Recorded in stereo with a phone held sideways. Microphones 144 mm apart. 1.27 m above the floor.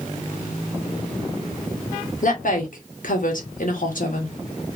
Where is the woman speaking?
65° left (ahead or behind), 1.2 m.